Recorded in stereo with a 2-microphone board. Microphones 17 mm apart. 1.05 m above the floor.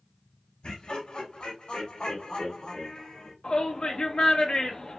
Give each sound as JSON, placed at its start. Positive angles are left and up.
{"t": 0.6, "sound": "laughter", "side_deg": 75, "distance_m": 2.5}
{"t": 3.4, "sound": "a shout", "side_deg": 60, "distance_m": 1.1}